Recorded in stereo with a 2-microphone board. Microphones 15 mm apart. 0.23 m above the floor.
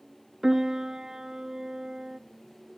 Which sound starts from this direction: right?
A piano, at 0.4 s.